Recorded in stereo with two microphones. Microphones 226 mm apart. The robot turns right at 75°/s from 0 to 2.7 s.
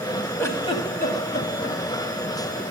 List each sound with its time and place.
0.4 s a giggle: 10° left (ahead or behind), 1.0 m; by 1.8 s 45° left (ahead or behind), 1.0 m